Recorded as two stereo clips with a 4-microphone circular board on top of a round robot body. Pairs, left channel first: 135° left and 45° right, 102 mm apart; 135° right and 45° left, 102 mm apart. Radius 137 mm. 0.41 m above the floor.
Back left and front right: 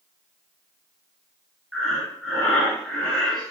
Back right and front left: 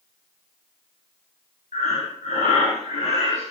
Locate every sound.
1.7 s breathing: 135° right, 2.5 m